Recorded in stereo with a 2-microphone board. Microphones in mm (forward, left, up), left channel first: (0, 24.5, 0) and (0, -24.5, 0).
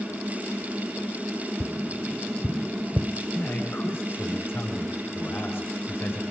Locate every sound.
1.6 s tapping: 5° right (ahead or behind), 0.7 m
3.3 s a man speaking: 55° left (ahead or behind), 6.5 m